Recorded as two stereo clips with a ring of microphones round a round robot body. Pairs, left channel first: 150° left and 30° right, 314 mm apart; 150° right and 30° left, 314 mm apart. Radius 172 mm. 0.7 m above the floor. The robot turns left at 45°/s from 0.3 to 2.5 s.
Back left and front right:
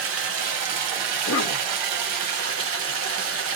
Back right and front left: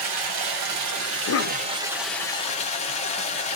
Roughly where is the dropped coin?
No dropped coin in this recording.